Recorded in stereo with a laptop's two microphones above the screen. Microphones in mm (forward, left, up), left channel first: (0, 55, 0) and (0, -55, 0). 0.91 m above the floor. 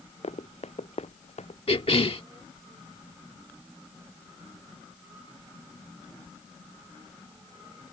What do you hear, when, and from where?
0.2 s running footsteps: 80° left
1.7 s a cough: 60° left (ahead or behind)